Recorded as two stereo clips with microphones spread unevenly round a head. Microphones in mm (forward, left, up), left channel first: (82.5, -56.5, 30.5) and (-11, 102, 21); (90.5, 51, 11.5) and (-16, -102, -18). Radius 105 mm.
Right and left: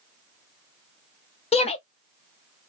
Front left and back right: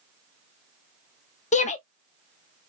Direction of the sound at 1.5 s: Straight ahead.